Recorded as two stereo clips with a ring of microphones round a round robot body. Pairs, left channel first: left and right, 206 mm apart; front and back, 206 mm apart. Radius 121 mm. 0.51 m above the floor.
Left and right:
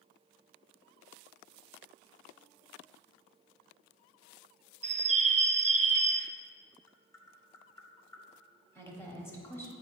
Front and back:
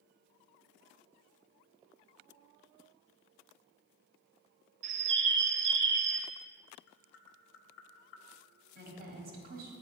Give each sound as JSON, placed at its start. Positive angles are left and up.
{"t": 4.8, "sound": "a bird", "azimuth_deg": -150, "distance_m": 0.5}
{"t": 6.9, "sound": "tapping", "azimuth_deg": 15, "distance_m": 0.7}
{"t": 8.8, "sound": "a woman speaking", "azimuth_deg": 165, "distance_m": 1.5}